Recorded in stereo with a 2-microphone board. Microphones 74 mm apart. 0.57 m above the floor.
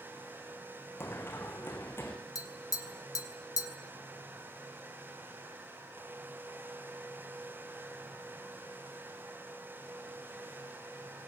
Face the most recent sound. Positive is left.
turn(degrees=55)  # may be behind; listen again after turning